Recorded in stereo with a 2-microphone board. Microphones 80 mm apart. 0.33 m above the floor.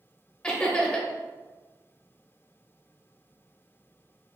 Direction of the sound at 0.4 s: 10° left (ahead or behind).